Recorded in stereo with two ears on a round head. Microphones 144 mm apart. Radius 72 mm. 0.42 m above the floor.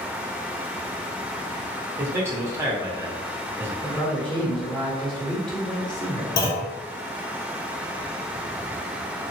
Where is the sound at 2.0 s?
15° right (ahead or behind), 0.8 m.